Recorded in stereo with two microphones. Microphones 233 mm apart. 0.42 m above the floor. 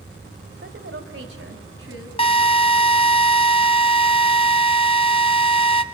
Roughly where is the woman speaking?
Right.